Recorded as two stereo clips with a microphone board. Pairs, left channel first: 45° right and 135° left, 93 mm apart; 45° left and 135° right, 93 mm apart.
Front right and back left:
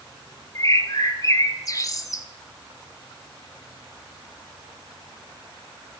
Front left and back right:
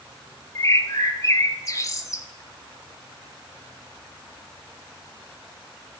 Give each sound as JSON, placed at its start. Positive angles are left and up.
{"t": 0.6, "sound": "a bird", "azimuth_deg": 0, "distance_m": 0.8}